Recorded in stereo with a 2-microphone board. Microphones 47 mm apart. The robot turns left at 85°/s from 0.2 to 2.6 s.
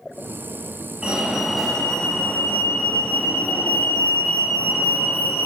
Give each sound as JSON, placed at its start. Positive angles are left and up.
{"t": 1.0, "sound": "a fire alarm", "side_deg": -20, "distance_m": 2.0}